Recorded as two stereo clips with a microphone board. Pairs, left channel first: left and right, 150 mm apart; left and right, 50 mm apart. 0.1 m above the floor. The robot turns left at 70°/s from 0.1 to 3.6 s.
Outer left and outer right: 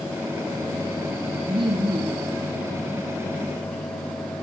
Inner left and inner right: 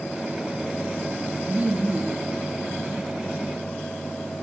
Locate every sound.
1.5 s laughter: 70° right, 1.5 m; by 2.3 s 130° right, 1.5 m